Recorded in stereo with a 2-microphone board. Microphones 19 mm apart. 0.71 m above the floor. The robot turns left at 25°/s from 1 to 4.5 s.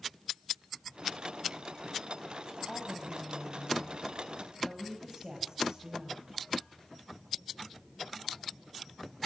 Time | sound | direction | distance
2.6 | a woman speaking | straight ahead | 5.5 m